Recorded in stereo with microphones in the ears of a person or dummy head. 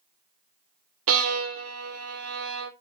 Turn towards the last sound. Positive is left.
turn(degrees=-85)